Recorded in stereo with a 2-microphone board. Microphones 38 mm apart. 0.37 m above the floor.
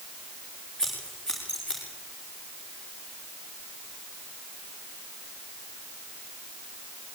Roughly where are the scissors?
Centre.